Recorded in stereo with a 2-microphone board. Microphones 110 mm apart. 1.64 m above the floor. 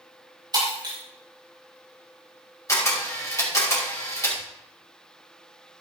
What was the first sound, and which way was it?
Breaking glass, 40° right (ahead or behind).